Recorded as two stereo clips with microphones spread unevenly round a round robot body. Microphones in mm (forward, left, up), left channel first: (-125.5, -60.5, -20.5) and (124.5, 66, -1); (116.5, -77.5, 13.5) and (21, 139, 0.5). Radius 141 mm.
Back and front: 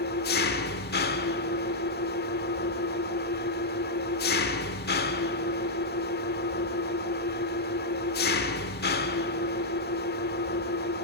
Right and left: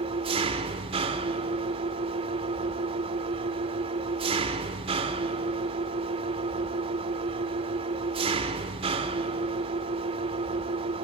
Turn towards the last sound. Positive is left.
turn(degrees=170)